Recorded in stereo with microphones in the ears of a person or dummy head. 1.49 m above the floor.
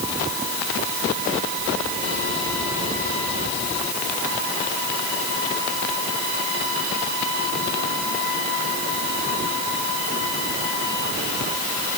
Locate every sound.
Only background noise.